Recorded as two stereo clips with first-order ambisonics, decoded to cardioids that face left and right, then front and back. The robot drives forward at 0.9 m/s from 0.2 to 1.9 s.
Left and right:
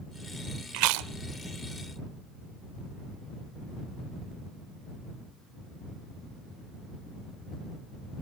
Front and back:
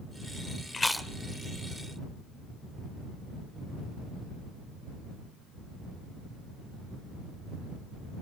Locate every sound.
0.7 s chewing: 70° right, 0.6 m; by 1.1 s 105° right, 0.6 m